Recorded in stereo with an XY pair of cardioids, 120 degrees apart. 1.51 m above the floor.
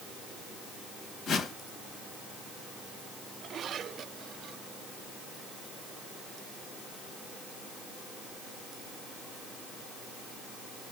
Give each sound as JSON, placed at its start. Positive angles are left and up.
{"t": 1.3, "sound": "a whoosh", "azimuth_deg": 60, "distance_m": 1.5}